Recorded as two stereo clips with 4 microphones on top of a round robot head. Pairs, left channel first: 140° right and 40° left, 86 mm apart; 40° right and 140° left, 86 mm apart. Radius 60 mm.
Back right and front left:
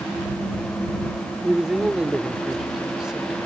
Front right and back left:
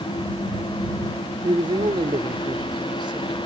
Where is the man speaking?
125° left.